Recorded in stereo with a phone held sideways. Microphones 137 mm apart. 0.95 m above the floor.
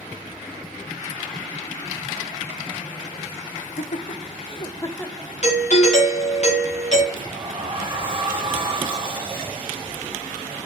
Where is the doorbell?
55° left (ahead or behind), 1.4 m.